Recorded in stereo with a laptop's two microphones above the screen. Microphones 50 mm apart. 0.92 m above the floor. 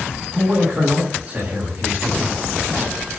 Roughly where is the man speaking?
Right.